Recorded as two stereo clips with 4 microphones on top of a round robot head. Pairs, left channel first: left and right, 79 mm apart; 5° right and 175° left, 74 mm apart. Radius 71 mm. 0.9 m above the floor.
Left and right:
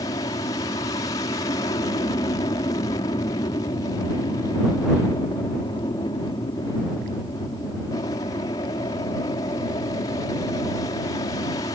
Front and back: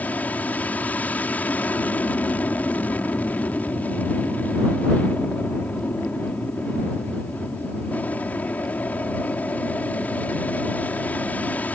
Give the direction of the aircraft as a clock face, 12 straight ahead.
10 o'clock.